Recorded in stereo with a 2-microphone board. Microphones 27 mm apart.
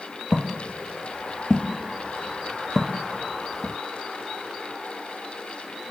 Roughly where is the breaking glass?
I don't hear breaking glass.